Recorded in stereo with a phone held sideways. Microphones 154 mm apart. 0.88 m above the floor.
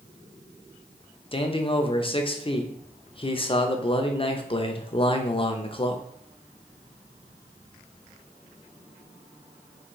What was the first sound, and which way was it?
A man speaking, 35° left (ahead or behind).